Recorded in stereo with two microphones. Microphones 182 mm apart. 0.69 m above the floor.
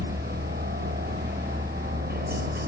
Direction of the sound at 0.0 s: 60° right (ahead or behind).